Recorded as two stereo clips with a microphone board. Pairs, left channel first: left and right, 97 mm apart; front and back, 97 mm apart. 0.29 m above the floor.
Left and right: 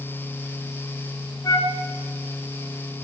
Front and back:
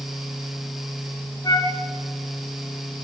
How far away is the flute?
About 3.5 m.